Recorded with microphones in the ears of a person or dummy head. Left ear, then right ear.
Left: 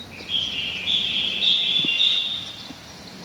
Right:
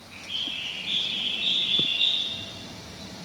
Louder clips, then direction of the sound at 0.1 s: Left 6 dB; centre (ahead or behind).